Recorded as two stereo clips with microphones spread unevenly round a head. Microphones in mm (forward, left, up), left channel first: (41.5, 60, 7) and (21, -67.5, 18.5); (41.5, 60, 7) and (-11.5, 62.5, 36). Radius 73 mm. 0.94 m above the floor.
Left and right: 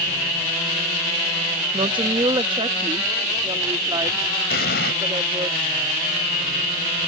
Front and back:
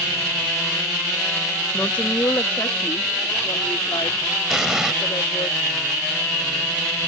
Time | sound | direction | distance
1.7 | a woman speaking | 50° right | ?
4.5 | an explosion | 105° left | ?